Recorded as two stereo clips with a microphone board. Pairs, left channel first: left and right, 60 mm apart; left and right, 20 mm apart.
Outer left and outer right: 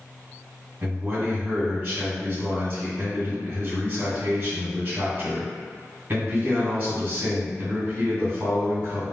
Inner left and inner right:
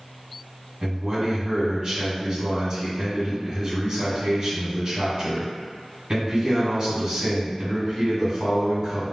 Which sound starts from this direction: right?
A man speaking, at 0.8 s.